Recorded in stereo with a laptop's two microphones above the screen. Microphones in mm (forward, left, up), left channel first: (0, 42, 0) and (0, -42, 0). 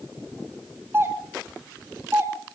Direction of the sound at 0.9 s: 30° right (ahead or behind).